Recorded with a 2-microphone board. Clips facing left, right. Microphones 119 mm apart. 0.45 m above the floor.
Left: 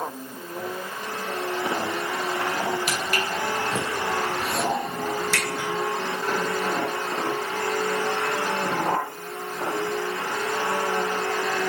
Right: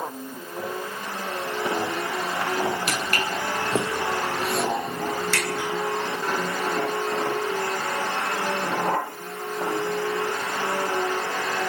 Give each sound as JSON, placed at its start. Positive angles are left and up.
{"t": 2.9, "sound": "footsteps", "side_deg": -55, "distance_m": 0.7}